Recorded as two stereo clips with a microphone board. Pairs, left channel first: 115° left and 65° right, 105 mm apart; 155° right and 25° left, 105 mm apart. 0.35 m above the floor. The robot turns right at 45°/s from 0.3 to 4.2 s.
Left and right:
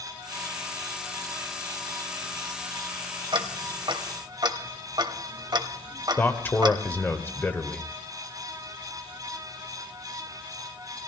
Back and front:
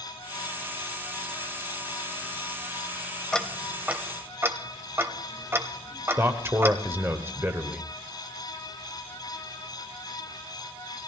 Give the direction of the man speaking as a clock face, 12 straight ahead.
10 o'clock.